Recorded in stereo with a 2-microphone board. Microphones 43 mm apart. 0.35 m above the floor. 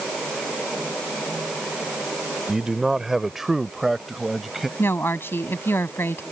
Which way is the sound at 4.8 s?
65° left (ahead or behind).